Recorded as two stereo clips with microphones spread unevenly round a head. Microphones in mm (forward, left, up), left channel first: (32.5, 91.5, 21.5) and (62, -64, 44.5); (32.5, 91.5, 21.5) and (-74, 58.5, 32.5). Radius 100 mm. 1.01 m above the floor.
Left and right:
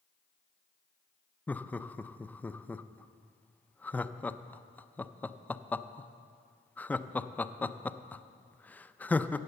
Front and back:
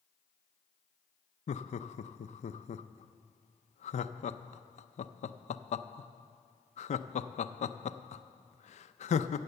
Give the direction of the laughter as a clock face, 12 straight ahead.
11 o'clock.